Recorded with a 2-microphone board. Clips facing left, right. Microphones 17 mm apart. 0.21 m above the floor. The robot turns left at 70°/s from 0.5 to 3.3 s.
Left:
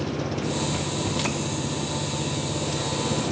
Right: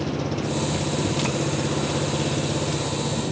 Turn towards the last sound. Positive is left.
turn(degrees=165)